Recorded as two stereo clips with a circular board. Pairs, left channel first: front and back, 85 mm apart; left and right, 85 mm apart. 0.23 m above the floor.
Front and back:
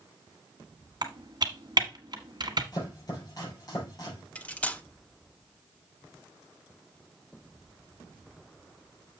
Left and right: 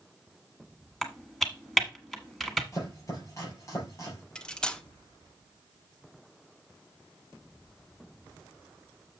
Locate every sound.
1.0 s typing on a keyboard: straight behind, 1.2 m
2.7 s chopping: 40° left, 4.5 m
4.3 s cutlery clinking: 30° left, 0.6 m